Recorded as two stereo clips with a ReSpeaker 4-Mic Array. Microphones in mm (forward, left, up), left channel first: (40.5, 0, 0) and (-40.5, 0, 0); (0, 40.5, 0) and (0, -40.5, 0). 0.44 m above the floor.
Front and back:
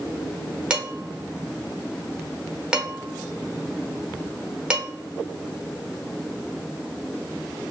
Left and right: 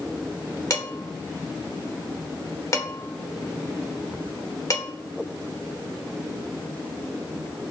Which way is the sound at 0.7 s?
105° left.